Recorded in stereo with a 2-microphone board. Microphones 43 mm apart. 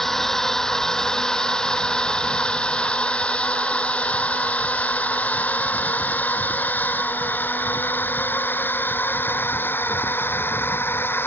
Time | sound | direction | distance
0.0 | a drone | 10° left (ahead or behind) | ?